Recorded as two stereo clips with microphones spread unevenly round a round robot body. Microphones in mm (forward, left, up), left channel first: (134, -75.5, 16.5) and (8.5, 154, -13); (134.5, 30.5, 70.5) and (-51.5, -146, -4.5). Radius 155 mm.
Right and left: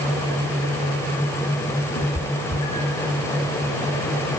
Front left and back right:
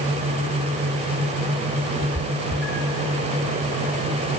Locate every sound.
1.9 s a cat meowing: 40° right, 7 m; by 3.1 s 45° right, 7.5 m